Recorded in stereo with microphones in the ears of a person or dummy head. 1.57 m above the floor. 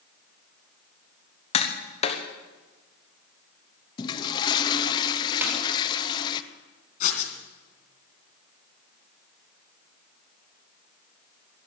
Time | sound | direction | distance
1.5 | tapping | 30° left (ahead or behind) | 1.2 m
4.0 | a toilet flushing | 30° left (ahead or behind) | 0.8 m
5.4 | a snare drum | 20° right (ahead or behind) | 2 m
7.0 | writing | 45° left (ahead or behind) | 2.5 m